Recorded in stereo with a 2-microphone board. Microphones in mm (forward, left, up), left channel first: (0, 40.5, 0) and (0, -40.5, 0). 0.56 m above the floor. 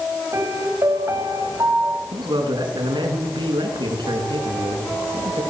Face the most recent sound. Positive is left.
turn(degrees=-80)